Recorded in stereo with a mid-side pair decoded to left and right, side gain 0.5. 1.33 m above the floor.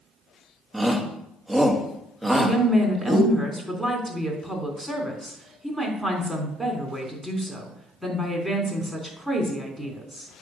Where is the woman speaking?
10° right, 3.5 m.